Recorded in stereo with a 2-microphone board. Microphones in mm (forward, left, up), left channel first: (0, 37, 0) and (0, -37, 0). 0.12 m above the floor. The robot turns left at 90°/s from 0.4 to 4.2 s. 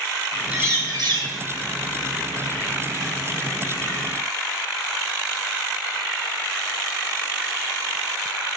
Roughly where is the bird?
Ahead.